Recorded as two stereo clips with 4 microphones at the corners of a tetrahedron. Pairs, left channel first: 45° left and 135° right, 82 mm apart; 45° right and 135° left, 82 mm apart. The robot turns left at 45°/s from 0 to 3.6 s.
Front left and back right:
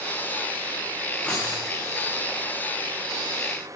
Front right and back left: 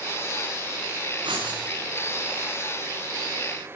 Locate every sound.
1.2 s writing: 120° left, 10 m; by 1.6 s 105° left, 10 m